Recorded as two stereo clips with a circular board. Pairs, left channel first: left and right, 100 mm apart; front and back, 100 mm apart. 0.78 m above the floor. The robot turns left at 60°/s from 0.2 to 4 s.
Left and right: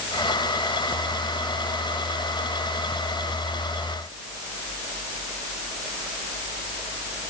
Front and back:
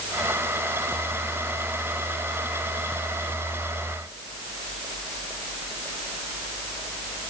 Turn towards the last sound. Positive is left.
No sound to turn to.